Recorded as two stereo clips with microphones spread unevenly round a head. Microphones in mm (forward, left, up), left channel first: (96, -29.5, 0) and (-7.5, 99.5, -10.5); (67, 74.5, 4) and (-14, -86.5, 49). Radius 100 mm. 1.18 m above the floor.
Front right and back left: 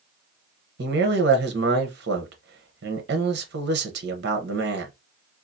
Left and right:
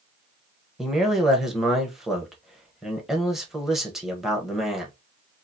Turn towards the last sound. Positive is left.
turn(degrees=150)